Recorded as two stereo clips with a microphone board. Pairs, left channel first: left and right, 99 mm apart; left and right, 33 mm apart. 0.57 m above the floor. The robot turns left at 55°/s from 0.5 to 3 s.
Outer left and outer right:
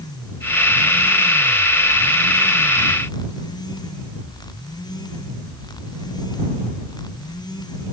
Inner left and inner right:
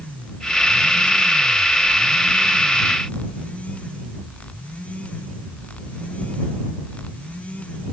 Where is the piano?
No piano in this recording.